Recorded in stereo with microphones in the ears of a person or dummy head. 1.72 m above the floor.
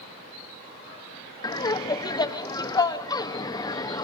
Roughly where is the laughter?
Left.